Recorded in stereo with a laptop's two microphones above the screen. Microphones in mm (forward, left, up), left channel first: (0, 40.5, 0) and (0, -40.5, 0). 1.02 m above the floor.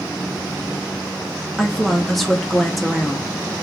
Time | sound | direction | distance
1.6 | a woman speaking | centre (ahead or behind) | 0.5 m